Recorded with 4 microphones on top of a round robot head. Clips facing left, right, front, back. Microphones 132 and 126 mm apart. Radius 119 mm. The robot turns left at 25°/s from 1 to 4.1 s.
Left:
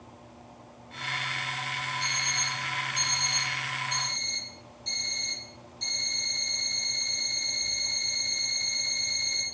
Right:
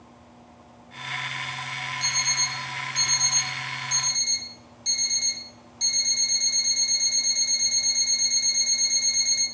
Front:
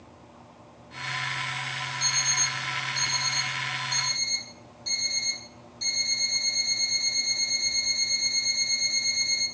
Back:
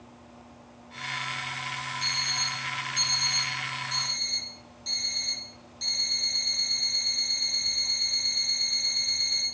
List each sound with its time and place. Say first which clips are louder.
2.0 s an alarm clock: right 1 dB, front 2 dB; 40° right, 1.2 m; by 9.4 s 90° right, 1.2 m